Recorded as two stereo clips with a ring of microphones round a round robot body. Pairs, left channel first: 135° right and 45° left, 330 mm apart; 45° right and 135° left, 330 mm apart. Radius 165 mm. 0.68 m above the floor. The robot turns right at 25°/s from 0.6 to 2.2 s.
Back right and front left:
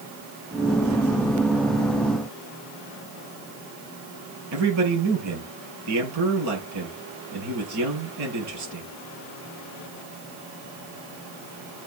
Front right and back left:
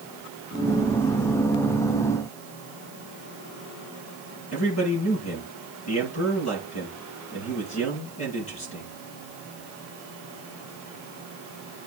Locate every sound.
4.5 s a man speaking: 5° left, 7 m